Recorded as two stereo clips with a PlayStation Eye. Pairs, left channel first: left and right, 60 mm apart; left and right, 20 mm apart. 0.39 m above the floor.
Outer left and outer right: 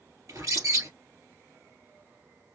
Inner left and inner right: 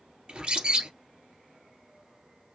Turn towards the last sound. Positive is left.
turn(degrees=-70)  # may be behind; listen again after turning